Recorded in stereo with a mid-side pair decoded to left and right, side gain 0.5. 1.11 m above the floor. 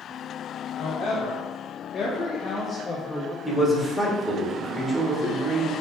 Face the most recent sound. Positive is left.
turn(degrees=10)